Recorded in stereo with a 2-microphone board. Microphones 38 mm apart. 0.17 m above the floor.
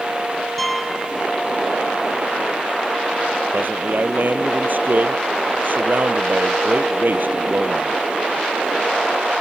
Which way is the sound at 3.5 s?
55° right (ahead or behind).